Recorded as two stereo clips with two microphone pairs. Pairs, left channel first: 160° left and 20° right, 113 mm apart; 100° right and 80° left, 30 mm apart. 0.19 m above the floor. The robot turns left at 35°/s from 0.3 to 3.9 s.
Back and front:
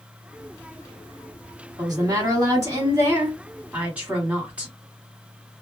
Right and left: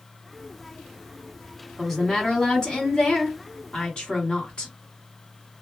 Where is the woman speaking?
15° right, 1.6 m; by 4.7 s 90° right, 1.6 m.